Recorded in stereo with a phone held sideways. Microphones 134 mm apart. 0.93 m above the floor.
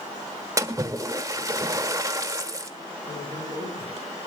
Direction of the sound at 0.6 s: 25° right (ahead or behind).